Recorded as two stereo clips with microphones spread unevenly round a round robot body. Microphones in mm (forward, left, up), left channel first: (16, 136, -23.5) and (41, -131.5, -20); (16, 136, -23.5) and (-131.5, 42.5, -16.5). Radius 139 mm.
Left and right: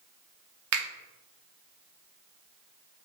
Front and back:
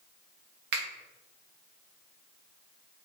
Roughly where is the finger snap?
Behind right.